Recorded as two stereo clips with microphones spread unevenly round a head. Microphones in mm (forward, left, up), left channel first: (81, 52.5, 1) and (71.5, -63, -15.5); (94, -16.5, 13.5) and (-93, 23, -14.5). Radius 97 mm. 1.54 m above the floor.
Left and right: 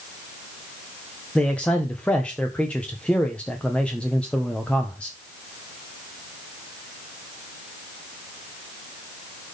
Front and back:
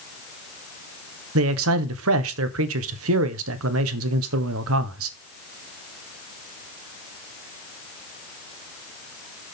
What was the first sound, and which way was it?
A man speaking, 170° left.